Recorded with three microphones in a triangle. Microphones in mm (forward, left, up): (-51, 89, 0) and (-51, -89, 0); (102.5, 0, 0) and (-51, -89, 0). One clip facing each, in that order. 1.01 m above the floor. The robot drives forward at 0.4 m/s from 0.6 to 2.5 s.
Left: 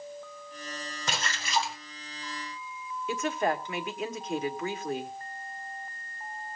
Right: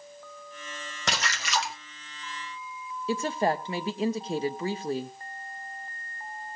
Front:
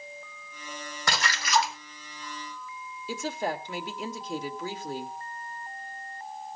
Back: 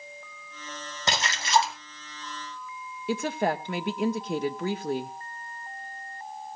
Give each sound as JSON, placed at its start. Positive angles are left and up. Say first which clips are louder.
{"t": 1.1, "sound": "a splash", "louder": "right 2 dB, back 2 dB", "azimuth_deg": -80, "distance_m": 1.9}
{"t": 3.1, "sound": "a woman speaking", "louder": "right 2 dB, back 5 dB", "azimuth_deg": -145, "distance_m": 1.4}